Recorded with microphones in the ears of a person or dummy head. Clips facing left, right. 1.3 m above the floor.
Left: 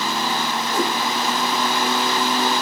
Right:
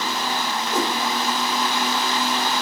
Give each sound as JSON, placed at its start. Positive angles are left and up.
{"t": 0.7, "sound": "a whoosh", "side_deg": -70, "distance_m": 1.9}